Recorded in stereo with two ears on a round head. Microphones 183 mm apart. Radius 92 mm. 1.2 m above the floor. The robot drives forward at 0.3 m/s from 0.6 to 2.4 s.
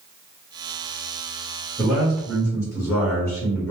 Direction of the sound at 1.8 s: 5° left (ahead or behind).